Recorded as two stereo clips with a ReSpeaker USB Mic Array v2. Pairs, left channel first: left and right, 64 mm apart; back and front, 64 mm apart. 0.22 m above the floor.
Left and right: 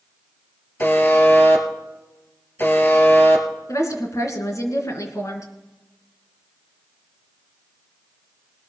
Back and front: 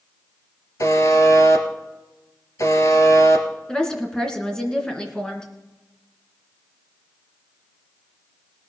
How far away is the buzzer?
About 1.9 m.